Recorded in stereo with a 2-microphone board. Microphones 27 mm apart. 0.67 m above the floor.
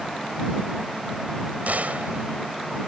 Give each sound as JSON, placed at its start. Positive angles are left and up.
{"t": 1.7, "sound": "a gunshot", "side_deg": -75}